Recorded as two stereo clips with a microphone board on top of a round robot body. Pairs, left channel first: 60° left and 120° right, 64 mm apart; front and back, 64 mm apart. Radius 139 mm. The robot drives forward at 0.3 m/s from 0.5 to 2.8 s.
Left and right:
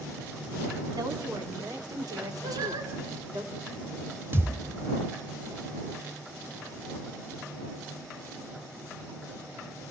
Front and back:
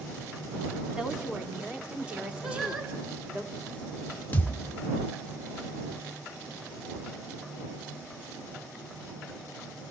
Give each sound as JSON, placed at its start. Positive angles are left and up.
{"t": 0.9, "sound": "a woman speaking", "azimuth_deg": -100, "distance_m": 3.5}
{"t": 2.4, "sound": "singing", "azimuth_deg": -95, "distance_m": 4.0}
{"t": 4.3, "sound": "a thud", "azimuth_deg": -65, "distance_m": 1.4}